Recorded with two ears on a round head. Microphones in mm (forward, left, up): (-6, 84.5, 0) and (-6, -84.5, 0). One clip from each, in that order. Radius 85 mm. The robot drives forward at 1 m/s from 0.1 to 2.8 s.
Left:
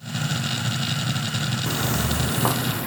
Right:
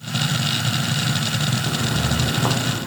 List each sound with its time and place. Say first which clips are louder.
1.7 s footsteps: right 2 dB; 45° left (ahead or behind); by 2.9 s 65° left (ahead or behind)